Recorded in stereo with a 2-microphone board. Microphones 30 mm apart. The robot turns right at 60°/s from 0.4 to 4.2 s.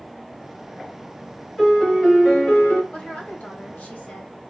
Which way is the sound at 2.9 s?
50° left.